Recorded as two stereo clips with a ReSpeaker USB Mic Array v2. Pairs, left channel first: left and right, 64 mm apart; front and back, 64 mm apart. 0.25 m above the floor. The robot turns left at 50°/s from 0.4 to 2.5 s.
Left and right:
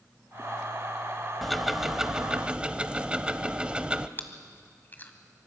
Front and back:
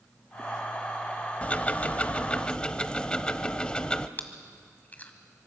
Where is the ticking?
5° left, 0.6 m; by 4.1 s 45° right, 0.6 m.